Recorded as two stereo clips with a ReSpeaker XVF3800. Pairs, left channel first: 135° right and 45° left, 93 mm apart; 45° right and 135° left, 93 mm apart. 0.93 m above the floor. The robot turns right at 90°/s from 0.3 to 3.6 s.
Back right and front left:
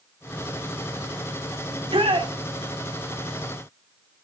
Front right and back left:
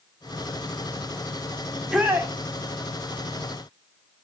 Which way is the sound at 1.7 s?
35° left.